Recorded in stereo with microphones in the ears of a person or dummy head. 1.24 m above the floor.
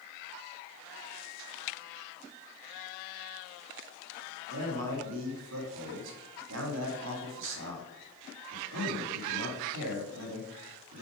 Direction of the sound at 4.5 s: 75° right (ahead or behind).